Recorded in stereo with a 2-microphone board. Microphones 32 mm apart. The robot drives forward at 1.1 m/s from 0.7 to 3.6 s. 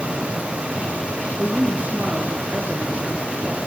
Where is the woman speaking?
60° right (ahead or behind), 3 m; by 3.6 s 35° right (ahead or behind), 4 m.